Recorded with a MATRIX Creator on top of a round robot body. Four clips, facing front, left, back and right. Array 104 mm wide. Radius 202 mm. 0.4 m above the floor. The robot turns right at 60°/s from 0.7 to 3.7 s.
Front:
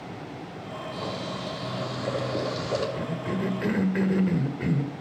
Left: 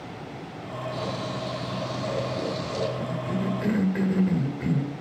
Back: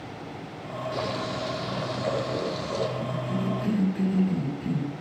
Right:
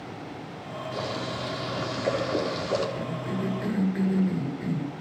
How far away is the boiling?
About 6 m.